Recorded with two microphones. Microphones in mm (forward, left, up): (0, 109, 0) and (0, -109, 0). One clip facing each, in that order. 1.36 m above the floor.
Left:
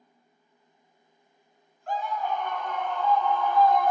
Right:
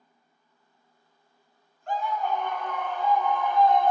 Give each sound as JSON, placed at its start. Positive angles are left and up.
{"t": 1.9, "sound": "a scream", "side_deg": 0, "distance_m": 1.7}